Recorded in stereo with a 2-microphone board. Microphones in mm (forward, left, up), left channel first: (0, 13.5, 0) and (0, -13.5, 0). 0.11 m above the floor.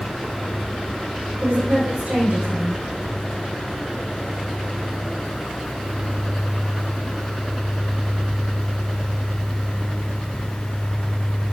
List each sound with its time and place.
1.4 s a woman speaking: 65° right (ahead or behind), 5 m